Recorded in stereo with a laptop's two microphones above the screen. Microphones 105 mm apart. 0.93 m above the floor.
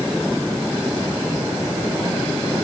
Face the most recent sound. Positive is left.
No sound to turn to.